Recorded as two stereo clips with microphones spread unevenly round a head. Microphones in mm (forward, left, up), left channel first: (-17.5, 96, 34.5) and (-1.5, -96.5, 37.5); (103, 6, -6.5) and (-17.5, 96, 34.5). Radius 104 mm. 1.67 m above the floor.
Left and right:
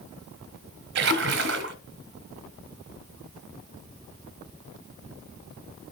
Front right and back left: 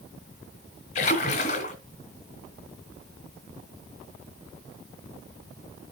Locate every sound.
0.9 s a splash: 100° right, 2 m